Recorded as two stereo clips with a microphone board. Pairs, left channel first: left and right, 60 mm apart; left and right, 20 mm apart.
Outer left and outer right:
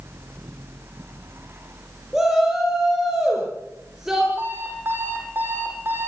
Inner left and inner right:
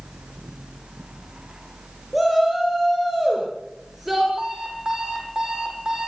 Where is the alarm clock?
40° right (ahead or behind), 8.5 m.